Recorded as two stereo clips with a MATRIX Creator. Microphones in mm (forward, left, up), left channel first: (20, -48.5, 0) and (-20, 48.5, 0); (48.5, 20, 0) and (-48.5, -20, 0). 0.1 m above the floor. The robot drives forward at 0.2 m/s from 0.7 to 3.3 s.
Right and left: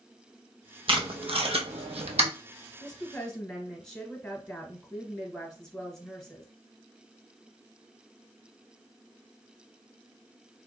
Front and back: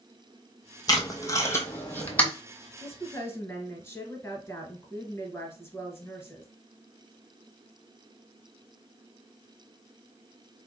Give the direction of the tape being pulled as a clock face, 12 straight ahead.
9 o'clock.